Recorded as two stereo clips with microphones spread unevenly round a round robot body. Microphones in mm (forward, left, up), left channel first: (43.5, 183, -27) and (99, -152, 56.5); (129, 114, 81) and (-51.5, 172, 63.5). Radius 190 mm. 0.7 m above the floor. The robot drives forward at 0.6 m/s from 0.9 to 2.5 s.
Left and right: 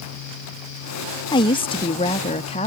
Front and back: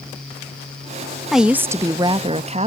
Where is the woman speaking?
85° left; by 2.7 s 145° left.